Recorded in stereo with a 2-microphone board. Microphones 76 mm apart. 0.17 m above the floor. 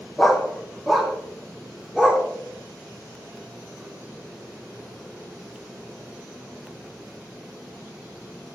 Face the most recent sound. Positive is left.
turn(degrees=-10)  # may be behind; listen again after turning